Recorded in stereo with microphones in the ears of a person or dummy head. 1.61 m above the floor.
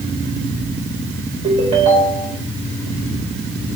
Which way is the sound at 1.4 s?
30° right (ahead or behind).